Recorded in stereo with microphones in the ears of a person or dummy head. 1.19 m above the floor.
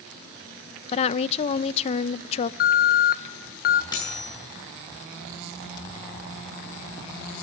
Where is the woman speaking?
40° left (ahead or behind), 0.7 m.